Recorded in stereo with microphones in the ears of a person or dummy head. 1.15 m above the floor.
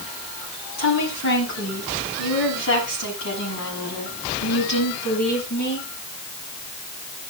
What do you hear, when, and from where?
0.8 s a woman speaking: 80° left, 8.5 m; by 5.9 s 55° left (ahead or behind), 11 m